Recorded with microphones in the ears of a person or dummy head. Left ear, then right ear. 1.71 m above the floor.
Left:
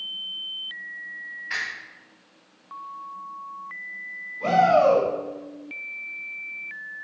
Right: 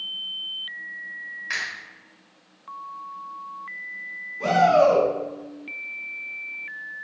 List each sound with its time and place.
1.5 s a finger snap: 45° right (ahead or behind), 1.8 m
4.4 s a shout: 65° right (ahead or behind), 1.6 m